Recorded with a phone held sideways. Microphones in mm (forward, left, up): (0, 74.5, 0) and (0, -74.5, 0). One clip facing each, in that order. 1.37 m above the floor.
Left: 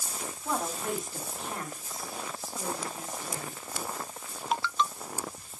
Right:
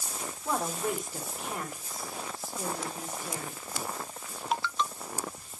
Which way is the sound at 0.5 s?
Centre (ahead or behind).